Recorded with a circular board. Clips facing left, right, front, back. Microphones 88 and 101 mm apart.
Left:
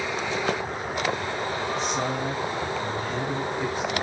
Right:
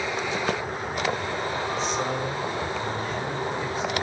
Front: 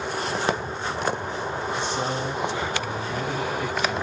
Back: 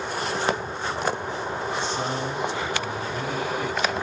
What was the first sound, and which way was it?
A man speaking, 80° left.